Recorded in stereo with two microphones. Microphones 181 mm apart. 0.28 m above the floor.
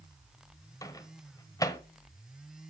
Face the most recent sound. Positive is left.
turn(degrees=20)  # may be behind; listen again after turning